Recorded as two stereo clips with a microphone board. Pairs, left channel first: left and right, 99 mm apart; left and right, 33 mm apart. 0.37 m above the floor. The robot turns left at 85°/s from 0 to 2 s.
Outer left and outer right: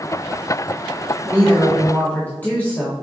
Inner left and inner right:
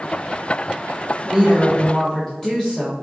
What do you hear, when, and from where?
1.2 s a woman speaking: 140° right, 1.4 m; by 2.9 s 155° left, 1.4 m